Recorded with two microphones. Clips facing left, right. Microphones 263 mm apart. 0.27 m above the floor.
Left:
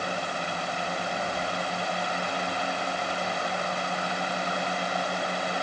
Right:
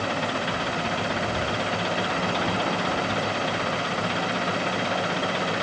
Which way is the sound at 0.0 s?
80° right.